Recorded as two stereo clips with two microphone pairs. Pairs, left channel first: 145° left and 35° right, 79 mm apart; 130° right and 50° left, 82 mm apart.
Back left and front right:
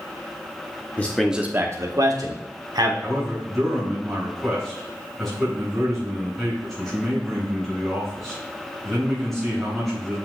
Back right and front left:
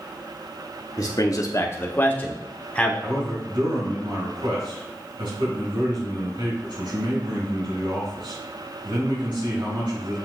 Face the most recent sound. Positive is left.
turn(degrees=55)